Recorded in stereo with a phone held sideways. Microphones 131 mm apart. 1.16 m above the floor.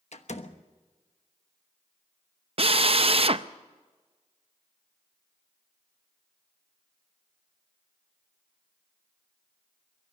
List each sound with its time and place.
0.1 s a door slam: 60° left (ahead or behind), 1.1 m
2.6 s a drill: 50° right (ahead or behind), 0.6 m